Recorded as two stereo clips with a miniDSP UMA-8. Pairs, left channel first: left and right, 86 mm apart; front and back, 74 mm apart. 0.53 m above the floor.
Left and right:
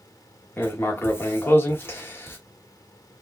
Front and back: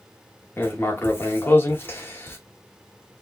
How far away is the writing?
About 0.9 m.